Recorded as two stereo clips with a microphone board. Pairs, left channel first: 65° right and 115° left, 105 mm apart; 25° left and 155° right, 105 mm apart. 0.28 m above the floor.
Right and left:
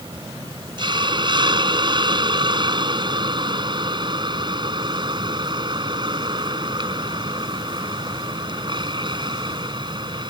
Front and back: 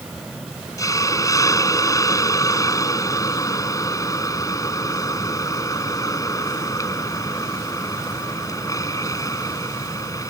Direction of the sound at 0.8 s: 75° left.